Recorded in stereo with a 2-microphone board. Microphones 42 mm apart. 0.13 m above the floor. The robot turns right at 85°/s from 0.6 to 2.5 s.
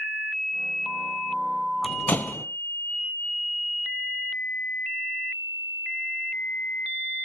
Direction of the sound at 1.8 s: 25° left (ahead or behind).